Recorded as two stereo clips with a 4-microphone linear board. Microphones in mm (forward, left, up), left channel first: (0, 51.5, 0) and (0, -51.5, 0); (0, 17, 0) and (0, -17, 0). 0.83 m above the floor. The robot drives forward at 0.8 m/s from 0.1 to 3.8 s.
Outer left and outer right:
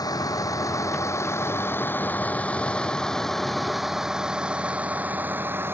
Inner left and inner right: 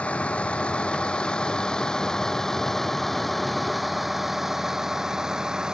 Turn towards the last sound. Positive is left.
turn(degrees=-25)  # may be behind; listen again after turning